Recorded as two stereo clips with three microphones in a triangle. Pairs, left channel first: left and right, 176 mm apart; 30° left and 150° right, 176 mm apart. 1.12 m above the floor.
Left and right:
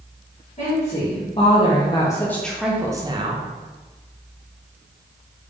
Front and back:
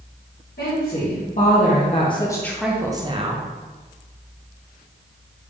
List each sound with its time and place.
0.6 s a woman speaking: 45° left, 1.4 m; by 3.4 s 130° right, 0.8 m